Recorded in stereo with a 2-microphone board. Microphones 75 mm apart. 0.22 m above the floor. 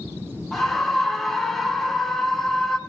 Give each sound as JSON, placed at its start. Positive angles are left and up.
{"t": 0.5, "sound": "a scream", "side_deg": 5, "distance_m": 2.0}